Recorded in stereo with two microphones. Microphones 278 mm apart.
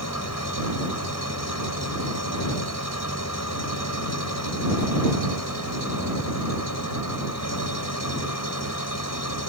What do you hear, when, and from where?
0.0 s an engine running: 75° left (ahead or behind)